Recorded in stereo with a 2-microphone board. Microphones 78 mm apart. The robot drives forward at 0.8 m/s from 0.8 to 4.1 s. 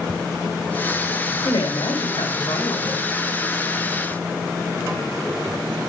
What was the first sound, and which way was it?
A woman speaking, 80° left.